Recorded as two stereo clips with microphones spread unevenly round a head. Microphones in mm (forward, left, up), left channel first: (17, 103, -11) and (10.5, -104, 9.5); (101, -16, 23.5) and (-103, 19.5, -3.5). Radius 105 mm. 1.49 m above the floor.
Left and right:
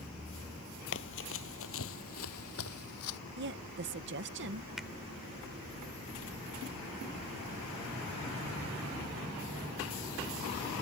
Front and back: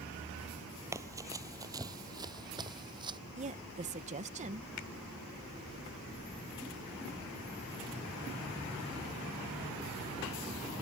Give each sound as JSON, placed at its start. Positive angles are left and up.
{"t": 0.9, "sound": "running footsteps", "azimuth_deg": 90}
{"t": 3.4, "sound": "a woman speaking", "azimuth_deg": -130}
{"t": 4.8, "sound": "a finger snap", "azimuth_deg": -5}